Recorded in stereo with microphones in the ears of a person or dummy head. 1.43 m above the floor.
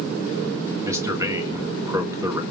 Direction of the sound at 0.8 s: 10° right (ahead or behind).